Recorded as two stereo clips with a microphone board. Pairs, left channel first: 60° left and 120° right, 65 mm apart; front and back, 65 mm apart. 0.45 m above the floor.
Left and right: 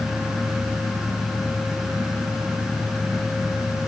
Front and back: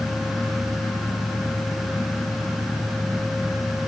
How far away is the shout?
No shout in this recording.